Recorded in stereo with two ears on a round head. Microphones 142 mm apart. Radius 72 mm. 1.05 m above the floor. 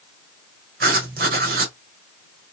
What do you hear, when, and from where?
0.8 s writing: 60° right (ahead or behind), 1.3 m